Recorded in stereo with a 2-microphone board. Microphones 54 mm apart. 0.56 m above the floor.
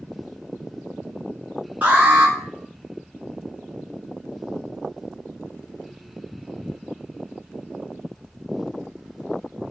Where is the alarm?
25° right (ahead or behind), 1.6 m.